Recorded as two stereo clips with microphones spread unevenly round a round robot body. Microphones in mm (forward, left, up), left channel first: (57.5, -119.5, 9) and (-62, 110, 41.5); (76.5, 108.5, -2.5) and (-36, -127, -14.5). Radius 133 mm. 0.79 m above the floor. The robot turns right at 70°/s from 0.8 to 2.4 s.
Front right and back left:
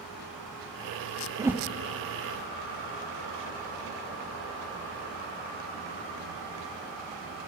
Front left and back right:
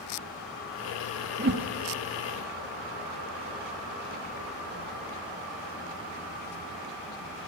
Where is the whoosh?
165° right, 0.7 m; by 1.7 s 145° right, 0.7 m.